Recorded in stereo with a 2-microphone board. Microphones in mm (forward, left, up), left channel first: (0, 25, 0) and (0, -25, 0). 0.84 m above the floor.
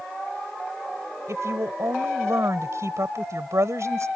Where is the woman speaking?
75° right (ahead or behind).